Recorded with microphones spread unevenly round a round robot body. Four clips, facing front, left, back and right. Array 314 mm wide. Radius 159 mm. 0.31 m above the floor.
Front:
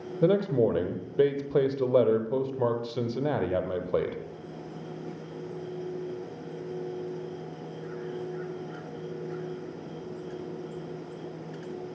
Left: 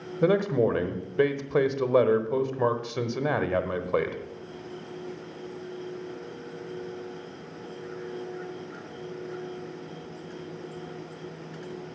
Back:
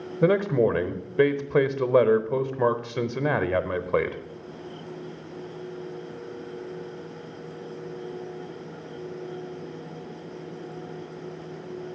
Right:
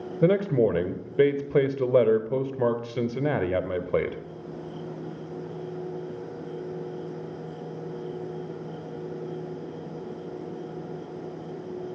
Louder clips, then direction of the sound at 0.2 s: Right 1 dB, back 2 dB; 140° right.